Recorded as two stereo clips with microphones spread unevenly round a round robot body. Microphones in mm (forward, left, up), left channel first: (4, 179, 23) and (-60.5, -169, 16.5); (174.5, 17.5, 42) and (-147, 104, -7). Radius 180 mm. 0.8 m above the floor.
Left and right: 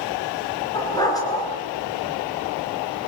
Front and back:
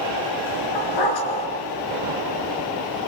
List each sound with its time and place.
0.8 s a dog barking: straight ahead, 4.5 m